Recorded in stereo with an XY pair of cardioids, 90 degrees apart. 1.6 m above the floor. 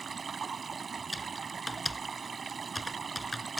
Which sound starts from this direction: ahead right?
Running water, at 0.0 s.